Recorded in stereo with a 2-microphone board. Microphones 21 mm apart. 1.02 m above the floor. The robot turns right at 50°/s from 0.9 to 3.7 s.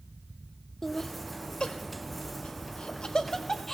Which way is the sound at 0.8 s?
25° left (ahead or behind).